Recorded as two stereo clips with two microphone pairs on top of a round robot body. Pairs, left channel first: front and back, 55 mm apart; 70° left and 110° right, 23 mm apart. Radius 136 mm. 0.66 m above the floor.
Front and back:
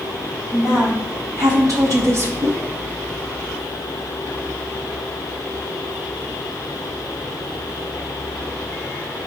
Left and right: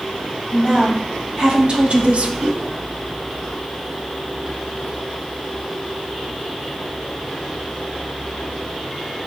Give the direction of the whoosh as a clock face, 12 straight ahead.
5 o'clock.